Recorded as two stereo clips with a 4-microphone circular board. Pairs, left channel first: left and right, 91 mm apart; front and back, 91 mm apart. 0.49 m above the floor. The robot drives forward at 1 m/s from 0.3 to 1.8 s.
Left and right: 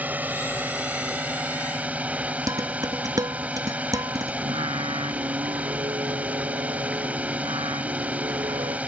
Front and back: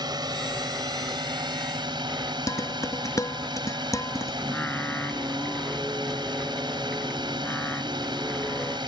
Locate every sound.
0.0 s a drone: 160° right; by 8.9 s 165° right
2.5 s dishes clattering: 50° right
4.4 s singing: 75° right